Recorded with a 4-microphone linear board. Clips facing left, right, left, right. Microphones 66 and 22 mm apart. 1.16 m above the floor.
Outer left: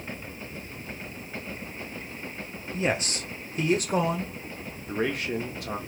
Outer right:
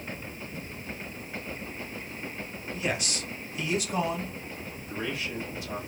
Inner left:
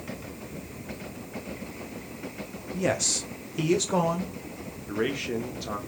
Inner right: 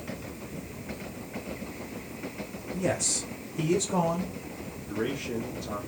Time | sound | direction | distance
2.7 | a man speaking | 30° left (ahead or behind) | 1.0 m
4.9 | a man speaking | 60° left (ahead or behind) | 1.3 m